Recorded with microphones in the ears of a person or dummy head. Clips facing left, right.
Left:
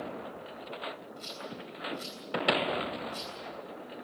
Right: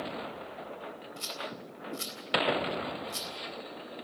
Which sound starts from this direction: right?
A rattle, at 1.2 s.